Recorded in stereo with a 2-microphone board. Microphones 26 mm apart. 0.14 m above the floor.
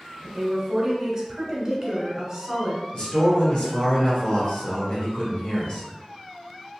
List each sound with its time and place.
0.2 s a woman speaking: 25° right (ahead or behind), 1.2 m
2.9 s a man speaking: 45° left (ahead or behind), 1.6 m